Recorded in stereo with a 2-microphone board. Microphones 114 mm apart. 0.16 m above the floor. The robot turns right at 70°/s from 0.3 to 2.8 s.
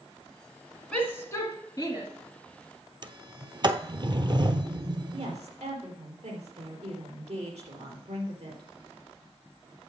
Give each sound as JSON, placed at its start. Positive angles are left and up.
{"t": 0.9, "sound": "a shout", "side_deg": 10, "distance_m": 1.4}
{"t": 3.0, "sound": "a sliding door", "side_deg": -45, "distance_m": 0.7}
{"t": 5.1, "sound": "a woman speaking", "side_deg": -70, "distance_m": 3.5}